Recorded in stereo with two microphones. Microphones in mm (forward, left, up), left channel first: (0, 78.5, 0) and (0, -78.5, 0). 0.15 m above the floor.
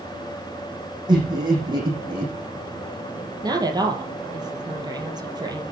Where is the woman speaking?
25° right (ahead or behind), 4 m.